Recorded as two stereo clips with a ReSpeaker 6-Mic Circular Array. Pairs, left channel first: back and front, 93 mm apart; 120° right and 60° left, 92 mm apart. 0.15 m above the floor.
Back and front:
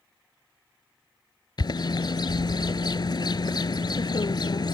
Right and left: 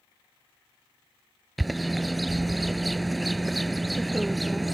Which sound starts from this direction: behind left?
A bird, at 1.6 s.